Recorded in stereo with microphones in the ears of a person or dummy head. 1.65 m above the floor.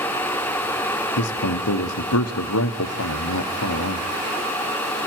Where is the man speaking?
85° left, 1.1 m.